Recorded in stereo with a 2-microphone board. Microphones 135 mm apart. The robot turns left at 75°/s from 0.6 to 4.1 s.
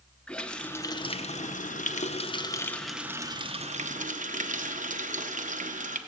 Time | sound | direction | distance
0.3 | a running tap | 170° left | 0.5 m